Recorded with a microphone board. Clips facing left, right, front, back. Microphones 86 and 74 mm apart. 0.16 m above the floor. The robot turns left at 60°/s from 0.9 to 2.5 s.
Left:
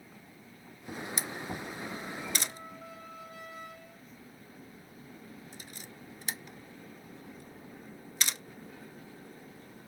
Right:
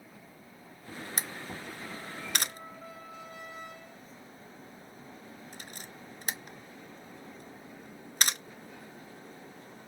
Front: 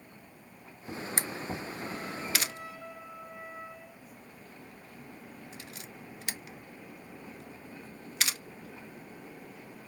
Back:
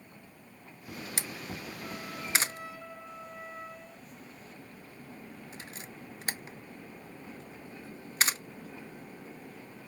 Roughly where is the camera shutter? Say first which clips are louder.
Left 2 dB, front 5 dB; ahead right.